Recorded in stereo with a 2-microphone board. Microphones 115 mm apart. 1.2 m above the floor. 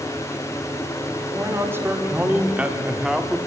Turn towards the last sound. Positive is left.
turn(degrees=0)  # may be behind; listen again after turning